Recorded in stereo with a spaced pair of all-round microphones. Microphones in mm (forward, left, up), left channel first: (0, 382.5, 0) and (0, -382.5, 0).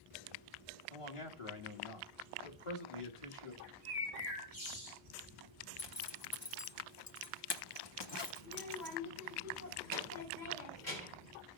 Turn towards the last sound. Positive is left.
turn(degrees=60)  # may be behind; listen again after turning